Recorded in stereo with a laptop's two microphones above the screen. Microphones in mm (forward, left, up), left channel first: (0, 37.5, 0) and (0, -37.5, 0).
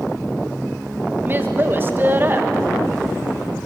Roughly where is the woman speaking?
Right.